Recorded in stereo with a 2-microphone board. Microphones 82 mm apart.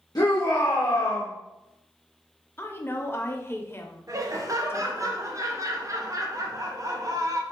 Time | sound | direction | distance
0.1 | a shout | 50° left (ahead or behind) | 1.0 m
2.6 | a woman speaking | 30° left (ahead or behind) | 0.7 m
4.1 | laughter | 45° right (ahead or behind) | 0.9 m